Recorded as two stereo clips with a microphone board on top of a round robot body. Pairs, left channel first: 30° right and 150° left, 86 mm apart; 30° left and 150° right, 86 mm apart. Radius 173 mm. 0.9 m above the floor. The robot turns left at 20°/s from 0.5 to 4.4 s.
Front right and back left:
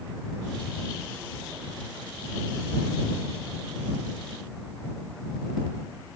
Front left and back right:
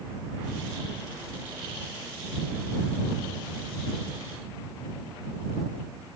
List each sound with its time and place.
Only background noise.